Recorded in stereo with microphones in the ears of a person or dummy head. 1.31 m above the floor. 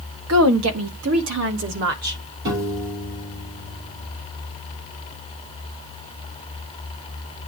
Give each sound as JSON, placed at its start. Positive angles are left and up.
{"t": 0.3, "sound": "a woman speaking", "side_deg": -70, "distance_m": 1.2}
{"t": 2.5, "sound": "a piano", "side_deg": -65, "distance_m": 3.0}